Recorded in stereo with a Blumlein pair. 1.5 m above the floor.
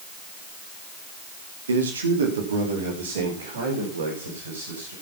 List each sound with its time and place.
1.7 s a man speaking: 70° right, 1.9 m